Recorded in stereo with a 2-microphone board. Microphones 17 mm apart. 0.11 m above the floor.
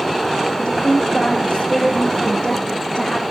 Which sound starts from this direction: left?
A woman speaking, at 0.6 s.